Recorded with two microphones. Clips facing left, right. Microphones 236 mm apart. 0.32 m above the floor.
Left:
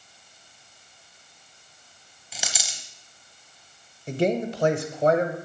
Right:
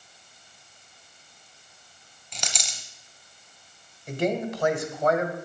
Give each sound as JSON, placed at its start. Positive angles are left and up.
{"t": 2.3, "sound": "a dropped coin", "side_deg": 5, "distance_m": 0.8}
{"t": 4.1, "sound": "a man speaking", "side_deg": 30, "distance_m": 1.1}